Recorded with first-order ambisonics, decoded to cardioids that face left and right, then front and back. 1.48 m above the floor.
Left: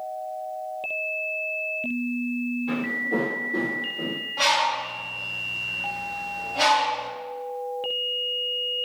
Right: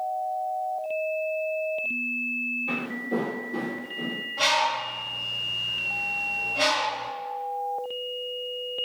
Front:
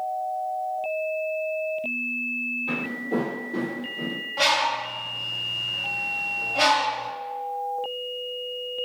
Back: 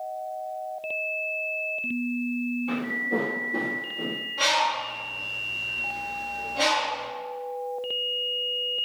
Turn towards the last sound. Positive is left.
turn(degrees=15)